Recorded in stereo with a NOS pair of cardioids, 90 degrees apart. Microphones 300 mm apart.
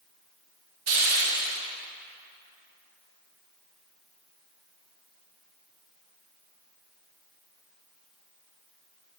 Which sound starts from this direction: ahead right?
A hiss, at 0.9 s.